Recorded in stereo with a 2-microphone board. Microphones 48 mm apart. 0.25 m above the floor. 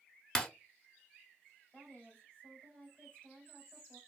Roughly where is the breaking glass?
Centre.